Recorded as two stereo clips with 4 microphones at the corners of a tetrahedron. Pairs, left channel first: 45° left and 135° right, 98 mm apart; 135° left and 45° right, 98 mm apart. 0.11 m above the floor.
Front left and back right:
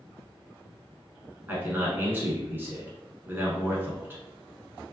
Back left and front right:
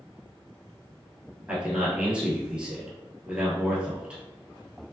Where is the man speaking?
110° right, 1.1 m.